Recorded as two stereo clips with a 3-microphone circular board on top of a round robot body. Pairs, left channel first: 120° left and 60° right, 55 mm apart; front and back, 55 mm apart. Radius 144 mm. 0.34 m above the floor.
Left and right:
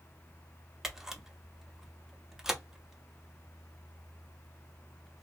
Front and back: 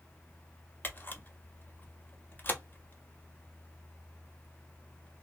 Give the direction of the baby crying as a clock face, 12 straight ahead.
I don't hear a baby crying.